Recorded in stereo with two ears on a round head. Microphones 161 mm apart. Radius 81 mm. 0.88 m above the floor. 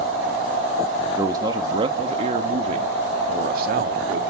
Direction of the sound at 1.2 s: 20° right (ahead or behind).